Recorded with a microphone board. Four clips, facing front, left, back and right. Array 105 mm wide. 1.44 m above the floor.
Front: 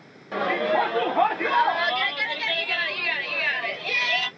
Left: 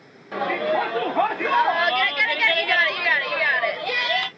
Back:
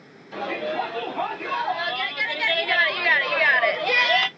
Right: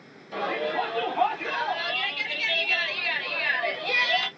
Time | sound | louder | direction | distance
0.3 | a shout | left 5 dB, front 4 dB | 40° left | 1.4 m